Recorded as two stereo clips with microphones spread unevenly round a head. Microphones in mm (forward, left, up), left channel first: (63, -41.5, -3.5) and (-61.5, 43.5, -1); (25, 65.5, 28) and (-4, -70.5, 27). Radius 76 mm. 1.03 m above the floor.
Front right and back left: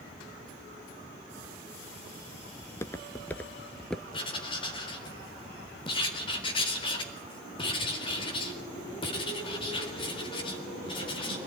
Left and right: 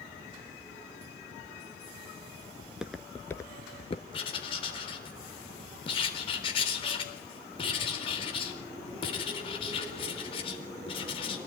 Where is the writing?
25° left, 4 m.